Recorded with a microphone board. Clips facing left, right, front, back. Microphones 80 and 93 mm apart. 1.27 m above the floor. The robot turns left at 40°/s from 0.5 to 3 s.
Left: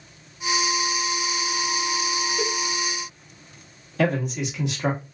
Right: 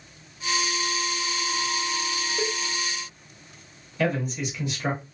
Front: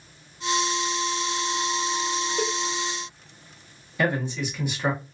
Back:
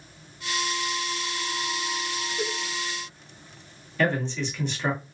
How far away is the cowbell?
About 0.6 m.